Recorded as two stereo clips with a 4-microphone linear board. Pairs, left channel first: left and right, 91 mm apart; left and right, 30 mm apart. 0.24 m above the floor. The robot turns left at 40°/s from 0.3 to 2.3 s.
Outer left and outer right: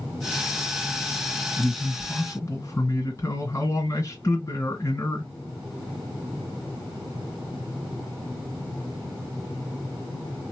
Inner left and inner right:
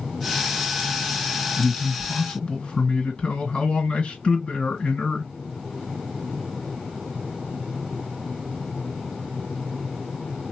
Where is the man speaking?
10° left (ahead or behind), 2.0 m; by 5.3 s 30° left (ahead or behind), 2.0 m.